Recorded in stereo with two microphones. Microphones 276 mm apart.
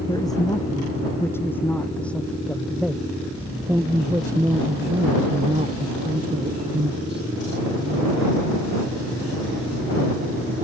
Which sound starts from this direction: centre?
A man speaking, at 0.1 s.